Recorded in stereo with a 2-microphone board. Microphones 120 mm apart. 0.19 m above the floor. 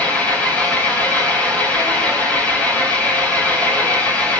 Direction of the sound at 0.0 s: 10° left (ahead or behind).